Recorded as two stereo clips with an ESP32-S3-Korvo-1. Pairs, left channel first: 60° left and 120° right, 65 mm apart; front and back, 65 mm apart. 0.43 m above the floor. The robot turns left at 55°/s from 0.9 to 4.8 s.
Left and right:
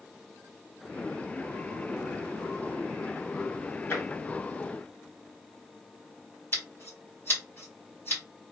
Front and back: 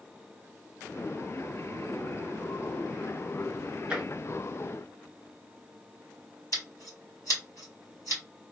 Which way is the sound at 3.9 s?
105° left.